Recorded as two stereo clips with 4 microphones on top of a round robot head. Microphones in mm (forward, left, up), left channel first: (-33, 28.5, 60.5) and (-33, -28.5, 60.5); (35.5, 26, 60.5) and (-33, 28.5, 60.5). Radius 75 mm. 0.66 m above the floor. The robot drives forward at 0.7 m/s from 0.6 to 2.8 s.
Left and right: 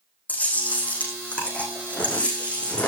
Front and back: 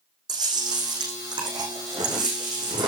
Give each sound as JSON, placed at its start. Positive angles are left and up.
{"t": 0.3, "sound": "chewing", "azimuth_deg": 155, "distance_m": 6.5}